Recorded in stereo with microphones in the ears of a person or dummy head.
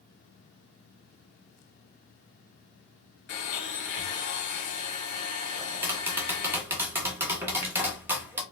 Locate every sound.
3.3 s a blender: 45° left (ahead or behind), 1.4 m
5.6 s tapping: 15° right (ahead or behind), 1.0 m